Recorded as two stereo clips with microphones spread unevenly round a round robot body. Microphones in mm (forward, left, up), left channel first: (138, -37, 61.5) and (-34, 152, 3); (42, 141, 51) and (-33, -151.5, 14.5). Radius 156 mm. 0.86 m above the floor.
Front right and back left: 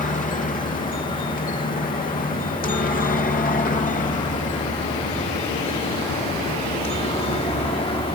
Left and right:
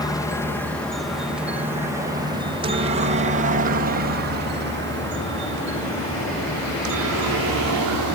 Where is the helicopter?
5° right; by 8.2 s 125° right.